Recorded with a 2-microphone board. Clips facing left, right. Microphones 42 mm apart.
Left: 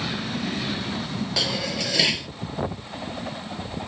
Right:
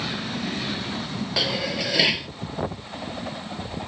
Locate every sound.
1.4 s dishes clattering: 10° right (ahead or behind)